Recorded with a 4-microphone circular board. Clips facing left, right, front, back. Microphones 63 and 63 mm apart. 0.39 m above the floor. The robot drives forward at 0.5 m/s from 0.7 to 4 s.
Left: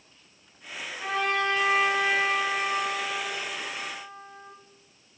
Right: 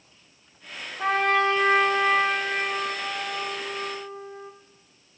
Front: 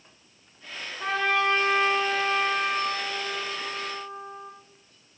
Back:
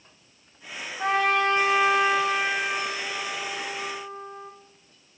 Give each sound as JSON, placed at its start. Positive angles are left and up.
{"t": 1.0, "sound": "a trumpet", "azimuth_deg": -125, "distance_m": 5.0}